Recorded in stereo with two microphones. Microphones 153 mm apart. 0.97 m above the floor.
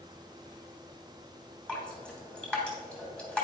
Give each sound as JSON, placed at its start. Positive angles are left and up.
{"t": 1.7, "sound": "dripping", "side_deg": 5, "distance_m": 3.0}